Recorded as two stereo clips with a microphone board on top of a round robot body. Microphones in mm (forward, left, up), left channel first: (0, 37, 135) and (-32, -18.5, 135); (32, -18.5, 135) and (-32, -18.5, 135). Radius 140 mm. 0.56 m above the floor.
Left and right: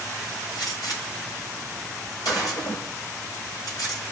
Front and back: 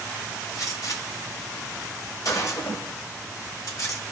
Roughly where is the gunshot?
Ahead left.